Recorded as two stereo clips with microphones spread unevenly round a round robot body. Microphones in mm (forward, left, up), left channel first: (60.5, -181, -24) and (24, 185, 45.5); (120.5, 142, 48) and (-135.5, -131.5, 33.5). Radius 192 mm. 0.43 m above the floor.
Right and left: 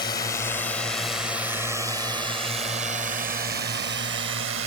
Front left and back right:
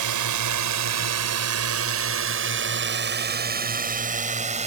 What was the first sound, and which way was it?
A drone, 155° right.